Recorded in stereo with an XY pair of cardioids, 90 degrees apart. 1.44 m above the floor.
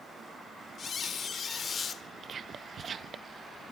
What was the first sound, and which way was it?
A squeak, 60° left.